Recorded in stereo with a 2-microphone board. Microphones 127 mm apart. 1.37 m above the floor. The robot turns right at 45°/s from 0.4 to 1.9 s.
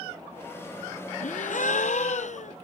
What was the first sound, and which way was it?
A gasp, 75° left.